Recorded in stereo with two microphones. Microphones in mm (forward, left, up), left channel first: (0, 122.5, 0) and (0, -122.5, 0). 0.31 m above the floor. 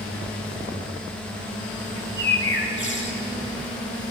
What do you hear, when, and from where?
2.0 s a bird: 50° left (ahead or behind), 0.7 m